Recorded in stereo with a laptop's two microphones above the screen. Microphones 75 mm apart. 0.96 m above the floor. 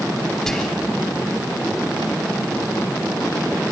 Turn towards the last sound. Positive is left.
turn(degrees=5)  # may be behind; listen again after turning